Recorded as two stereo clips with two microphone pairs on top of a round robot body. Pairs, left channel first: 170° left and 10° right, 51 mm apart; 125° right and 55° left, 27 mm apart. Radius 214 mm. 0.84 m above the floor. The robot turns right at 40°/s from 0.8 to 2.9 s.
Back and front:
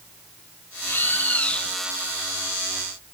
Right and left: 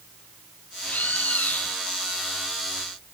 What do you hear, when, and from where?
0.9 s a bird: 145° right; by 1.8 s 110° right